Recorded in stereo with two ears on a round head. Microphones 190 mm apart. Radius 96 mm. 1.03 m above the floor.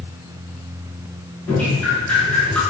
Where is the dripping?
5° left (ahead or behind), 5 m.